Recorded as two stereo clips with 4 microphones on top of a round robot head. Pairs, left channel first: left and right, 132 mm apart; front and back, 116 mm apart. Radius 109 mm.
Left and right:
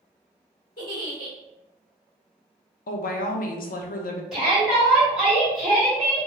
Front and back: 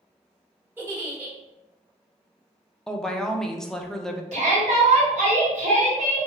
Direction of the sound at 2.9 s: 90° left.